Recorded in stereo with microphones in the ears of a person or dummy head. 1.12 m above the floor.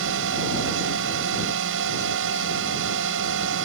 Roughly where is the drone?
Right.